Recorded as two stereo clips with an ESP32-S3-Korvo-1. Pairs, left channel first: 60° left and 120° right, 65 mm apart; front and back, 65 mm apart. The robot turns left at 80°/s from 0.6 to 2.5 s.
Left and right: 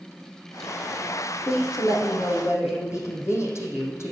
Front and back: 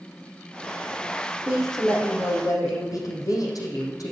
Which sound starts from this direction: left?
A woman speaking, at 1.5 s.